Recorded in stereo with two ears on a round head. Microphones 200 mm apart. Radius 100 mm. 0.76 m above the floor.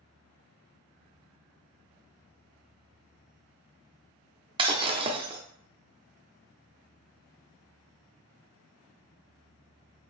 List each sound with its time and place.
4.6 s breaking glass: 25° right (ahead or behind), 0.6 m